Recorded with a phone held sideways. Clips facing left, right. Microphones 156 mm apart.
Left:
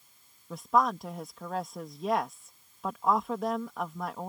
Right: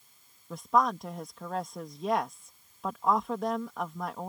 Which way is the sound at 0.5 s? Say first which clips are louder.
Even; centre (ahead or behind).